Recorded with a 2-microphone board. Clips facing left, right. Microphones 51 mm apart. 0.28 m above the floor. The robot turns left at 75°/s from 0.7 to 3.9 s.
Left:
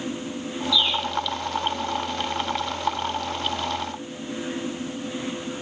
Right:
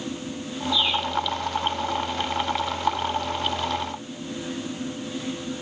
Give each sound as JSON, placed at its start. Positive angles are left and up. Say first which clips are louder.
{"t": 0.7, "sound": "a bird", "louder": "even", "side_deg": -40, "distance_m": 5.5}